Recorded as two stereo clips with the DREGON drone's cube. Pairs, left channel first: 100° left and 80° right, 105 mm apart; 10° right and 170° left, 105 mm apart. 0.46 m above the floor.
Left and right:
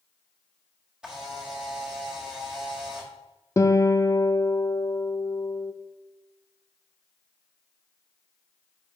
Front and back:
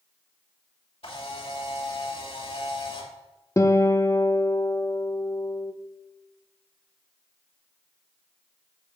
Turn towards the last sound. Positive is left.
turn(degrees=45)